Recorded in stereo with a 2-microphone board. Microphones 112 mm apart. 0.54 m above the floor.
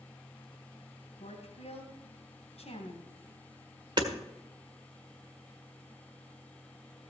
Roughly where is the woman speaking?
Left.